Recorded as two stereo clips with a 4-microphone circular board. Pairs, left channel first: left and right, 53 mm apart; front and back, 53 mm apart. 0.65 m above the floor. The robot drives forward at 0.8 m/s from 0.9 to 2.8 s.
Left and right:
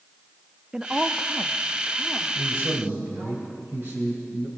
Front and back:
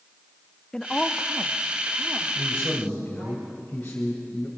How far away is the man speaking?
About 3 m.